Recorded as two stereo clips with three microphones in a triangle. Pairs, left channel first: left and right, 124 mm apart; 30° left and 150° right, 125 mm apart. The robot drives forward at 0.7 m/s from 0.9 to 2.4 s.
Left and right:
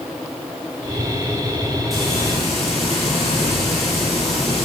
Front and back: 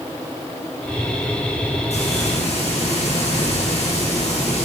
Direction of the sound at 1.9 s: Straight ahead.